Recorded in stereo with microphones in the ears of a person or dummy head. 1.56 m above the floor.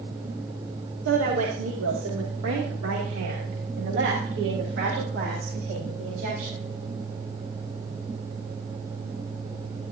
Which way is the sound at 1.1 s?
85° right.